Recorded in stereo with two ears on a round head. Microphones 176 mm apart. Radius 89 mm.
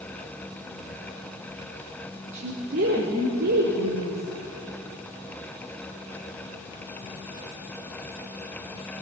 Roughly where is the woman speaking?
Right.